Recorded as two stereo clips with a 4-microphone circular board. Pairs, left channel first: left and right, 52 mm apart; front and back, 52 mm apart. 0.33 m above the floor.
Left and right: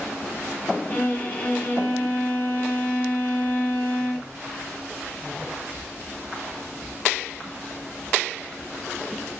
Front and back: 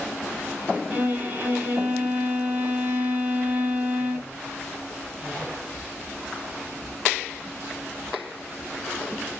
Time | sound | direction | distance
0.9 | a violin | 140° left | 2.5 m